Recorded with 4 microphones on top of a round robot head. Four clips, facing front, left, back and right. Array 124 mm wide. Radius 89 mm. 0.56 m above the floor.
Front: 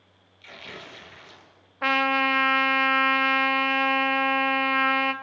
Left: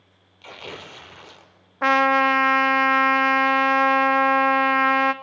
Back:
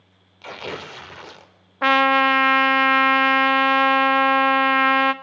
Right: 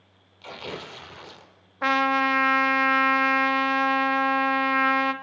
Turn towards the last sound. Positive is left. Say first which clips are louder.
# left 4 dB, back 7 dB
turn(degrees=150)